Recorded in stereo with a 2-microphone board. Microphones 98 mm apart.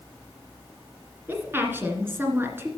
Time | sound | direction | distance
1.3 | a woman speaking | 20° right (ahead or behind) | 1.9 m